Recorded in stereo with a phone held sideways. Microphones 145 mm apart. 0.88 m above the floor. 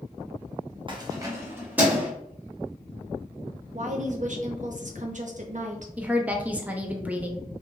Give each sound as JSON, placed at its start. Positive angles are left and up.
{"t": 0.9, "sound": "keys jangling", "side_deg": -35, "distance_m": 0.6}
{"t": 3.7, "sound": "a woman speaking", "side_deg": -55, "distance_m": 0.6}
{"t": 6.0, "sound": "a woman speaking", "side_deg": -10, "distance_m": 0.6}